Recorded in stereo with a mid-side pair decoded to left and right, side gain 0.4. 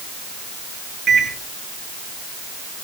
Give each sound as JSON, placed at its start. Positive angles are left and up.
{"t": 1.1, "sound": "a microwave", "azimuth_deg": -55, "distance_m": 6.0}